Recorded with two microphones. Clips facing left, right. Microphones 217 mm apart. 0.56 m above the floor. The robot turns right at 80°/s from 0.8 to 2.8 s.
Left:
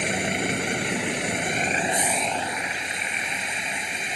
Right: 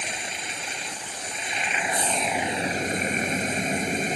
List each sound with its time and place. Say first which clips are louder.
0.0 s a vehicle: left 11 dB; 65° left; by 4.2 s 135° right